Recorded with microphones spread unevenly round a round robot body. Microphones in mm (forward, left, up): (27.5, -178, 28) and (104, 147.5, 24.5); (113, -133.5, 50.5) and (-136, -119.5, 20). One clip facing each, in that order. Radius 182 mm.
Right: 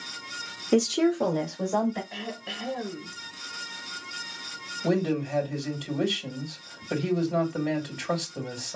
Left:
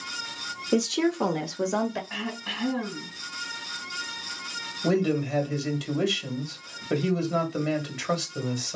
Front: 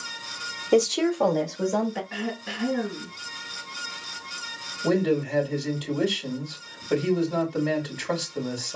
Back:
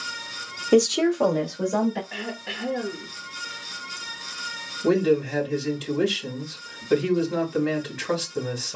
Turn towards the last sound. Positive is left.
turn(degrees=115)